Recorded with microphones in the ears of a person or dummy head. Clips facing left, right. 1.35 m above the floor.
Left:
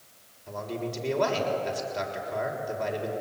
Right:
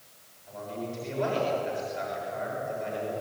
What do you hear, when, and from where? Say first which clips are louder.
0.5 s a man speaking: left 3 dB; 65° left (ahead or behind), 6.5 m